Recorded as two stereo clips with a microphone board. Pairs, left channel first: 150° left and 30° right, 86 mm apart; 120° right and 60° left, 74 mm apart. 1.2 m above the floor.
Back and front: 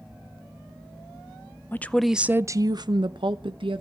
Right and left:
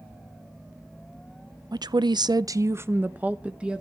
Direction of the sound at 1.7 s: 85° left.